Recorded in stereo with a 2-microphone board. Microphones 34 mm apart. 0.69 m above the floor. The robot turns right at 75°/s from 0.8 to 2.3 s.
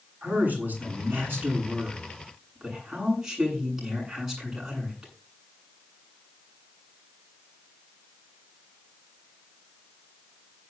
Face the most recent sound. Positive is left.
turn(degrees=-15)